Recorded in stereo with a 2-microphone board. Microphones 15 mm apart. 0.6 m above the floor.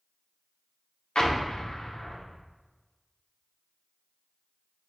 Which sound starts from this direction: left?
An explosion, at 1.1 s.